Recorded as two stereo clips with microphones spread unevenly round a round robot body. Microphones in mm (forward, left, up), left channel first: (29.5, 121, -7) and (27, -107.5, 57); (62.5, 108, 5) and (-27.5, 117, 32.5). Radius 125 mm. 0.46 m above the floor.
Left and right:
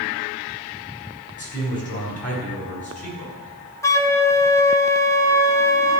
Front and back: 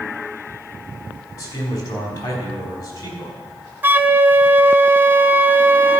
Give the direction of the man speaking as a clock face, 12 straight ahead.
11 o'clock.